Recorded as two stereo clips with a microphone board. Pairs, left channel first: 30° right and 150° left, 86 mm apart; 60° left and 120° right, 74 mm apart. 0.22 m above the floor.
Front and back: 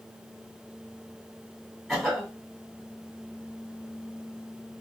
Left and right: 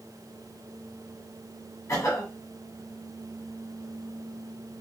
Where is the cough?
65° left, 1.5 m.